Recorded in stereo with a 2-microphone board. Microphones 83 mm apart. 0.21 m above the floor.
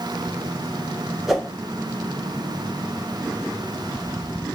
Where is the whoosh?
5° right (ahead or behind), 0.9 m.